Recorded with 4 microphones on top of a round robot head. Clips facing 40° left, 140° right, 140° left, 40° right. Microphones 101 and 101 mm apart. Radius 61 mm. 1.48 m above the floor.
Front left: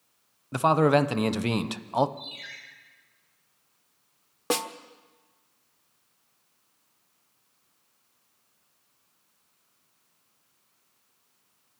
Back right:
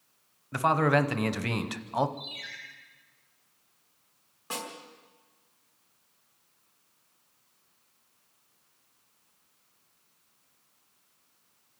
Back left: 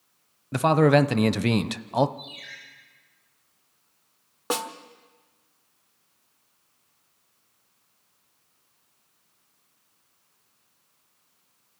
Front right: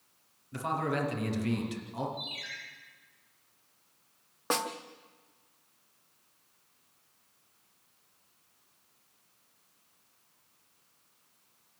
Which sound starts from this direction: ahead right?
A ringtone, at 2.2 s.